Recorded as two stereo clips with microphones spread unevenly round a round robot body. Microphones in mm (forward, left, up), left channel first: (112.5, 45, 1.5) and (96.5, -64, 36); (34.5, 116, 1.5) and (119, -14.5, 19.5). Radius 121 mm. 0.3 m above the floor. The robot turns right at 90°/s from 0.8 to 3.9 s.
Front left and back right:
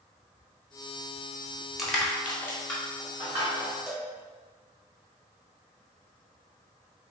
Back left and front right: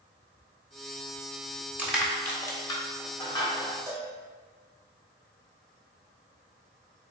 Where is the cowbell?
5° left, 1.5 m.